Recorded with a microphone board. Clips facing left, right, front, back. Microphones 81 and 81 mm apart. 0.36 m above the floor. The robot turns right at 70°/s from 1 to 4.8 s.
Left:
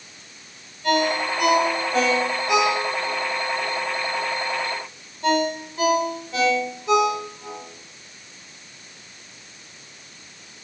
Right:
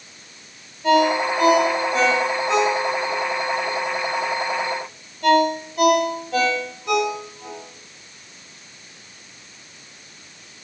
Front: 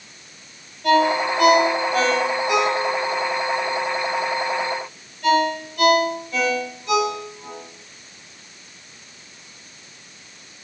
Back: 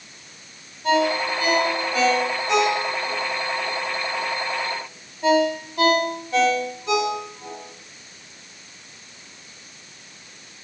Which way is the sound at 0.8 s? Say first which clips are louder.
Right 4 dB, front 3 dB; 25° right.